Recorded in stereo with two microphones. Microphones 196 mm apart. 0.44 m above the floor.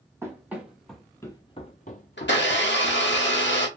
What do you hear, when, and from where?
0.2 s running footsteps: 15° right (ahead or behind), 0.9 m; by 3.2 s 50° left (ahead or behind), 0.9 m
2.2 s a blender: 65° left (ahead or behind), 0.8 m